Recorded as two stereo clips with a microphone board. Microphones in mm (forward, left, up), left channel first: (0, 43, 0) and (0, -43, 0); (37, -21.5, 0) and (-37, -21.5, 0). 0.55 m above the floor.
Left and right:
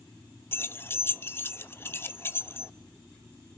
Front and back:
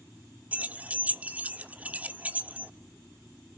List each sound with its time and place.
0.5 s keys jangling: 130° left, 0.6 m